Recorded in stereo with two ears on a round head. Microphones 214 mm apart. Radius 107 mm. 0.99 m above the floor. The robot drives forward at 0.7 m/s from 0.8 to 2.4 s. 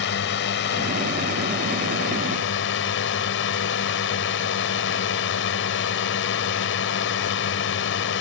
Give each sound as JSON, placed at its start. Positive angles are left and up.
{"t": 0.0, "sound": "a drone", "side_deg": 50}